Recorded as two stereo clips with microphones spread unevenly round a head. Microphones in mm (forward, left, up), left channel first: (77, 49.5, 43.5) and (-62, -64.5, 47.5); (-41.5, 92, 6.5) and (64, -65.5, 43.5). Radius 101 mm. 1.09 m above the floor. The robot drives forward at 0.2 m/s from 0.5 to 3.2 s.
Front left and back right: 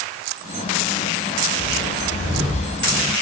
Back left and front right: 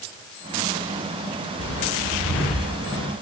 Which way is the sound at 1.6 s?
155° left.